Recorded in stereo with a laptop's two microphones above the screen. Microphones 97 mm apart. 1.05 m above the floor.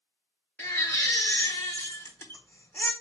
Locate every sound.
0.6 s a baby crying: 25° left (ahead or behind), 1.1 m